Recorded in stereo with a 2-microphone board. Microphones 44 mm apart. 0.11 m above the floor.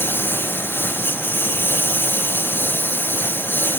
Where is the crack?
I don't hear a crack.